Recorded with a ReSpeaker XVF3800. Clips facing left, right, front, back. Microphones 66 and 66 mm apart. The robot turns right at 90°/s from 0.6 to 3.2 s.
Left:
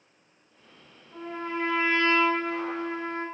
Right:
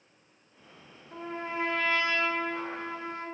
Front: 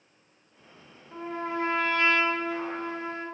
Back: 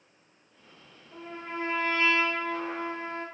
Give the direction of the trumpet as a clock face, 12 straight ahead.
2 o'clock.